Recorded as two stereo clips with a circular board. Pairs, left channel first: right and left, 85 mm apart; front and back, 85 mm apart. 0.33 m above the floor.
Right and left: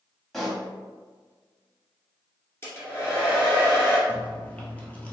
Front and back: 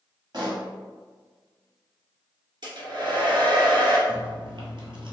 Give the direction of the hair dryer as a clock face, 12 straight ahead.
5 o'clock.